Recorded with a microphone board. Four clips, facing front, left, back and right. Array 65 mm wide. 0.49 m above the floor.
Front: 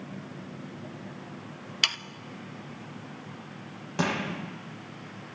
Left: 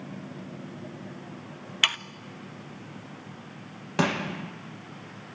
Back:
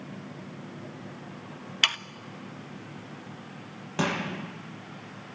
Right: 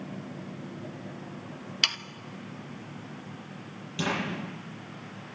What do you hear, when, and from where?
1.8 s sawing: 125° left, 0.6 m
4.0 s crushing: 95° left, 9.5 m